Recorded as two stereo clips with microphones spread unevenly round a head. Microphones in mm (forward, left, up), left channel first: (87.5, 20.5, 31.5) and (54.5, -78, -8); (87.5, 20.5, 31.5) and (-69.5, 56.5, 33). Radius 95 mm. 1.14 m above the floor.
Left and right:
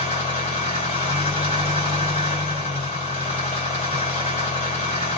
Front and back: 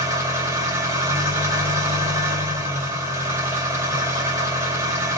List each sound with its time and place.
0.0 s an engine running: 95° left, 2.5 m